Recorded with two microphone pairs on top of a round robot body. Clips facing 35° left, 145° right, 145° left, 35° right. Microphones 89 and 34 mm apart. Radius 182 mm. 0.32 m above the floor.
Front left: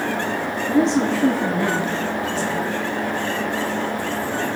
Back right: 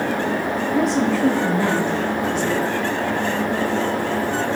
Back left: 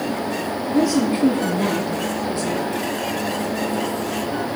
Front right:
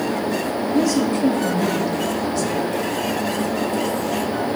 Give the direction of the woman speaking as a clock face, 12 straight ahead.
10 o'clock.